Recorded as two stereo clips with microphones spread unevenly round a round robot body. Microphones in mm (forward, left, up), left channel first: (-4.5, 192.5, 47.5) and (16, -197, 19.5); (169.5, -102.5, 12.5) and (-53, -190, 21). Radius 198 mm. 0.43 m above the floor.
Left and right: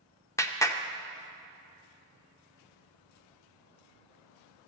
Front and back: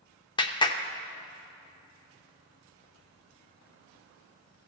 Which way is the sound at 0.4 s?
10° left.